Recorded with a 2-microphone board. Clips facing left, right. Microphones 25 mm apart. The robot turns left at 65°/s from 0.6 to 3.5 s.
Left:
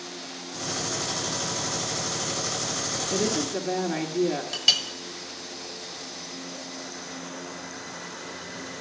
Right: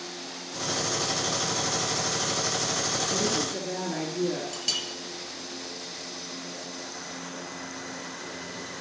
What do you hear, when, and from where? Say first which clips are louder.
3.1 s a woman speaking: left 1 dB; 20° left (ahead or behind), 1.6 m
4.5 s a clink: left 8 dB; 40° left (ahead or behind), 1.4 m